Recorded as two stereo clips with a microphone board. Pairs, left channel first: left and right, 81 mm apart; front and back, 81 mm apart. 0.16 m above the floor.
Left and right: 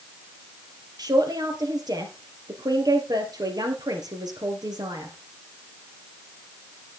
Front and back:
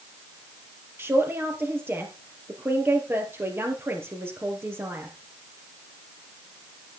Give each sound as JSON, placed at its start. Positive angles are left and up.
{"t": 1.0, "sound": "a man speaking", "azimuth_deg": -120, "distance_m": 3.0}